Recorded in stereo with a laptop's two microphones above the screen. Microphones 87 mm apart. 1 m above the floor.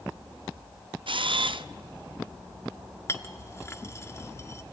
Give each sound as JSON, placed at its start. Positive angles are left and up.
{"t": 1.1, "sound": "a camera shutter", "side_deg": -70, "distance_m": 0.5}
{"t": 3.1, "sound": "a clink", "side_deg": 30, "distance_m": 1.1}